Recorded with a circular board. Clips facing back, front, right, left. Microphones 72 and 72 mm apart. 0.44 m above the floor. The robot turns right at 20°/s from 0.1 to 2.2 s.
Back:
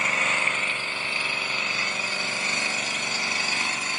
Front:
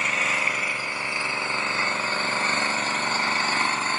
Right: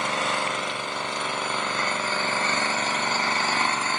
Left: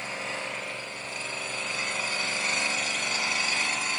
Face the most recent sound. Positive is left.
turn(degrees=-50)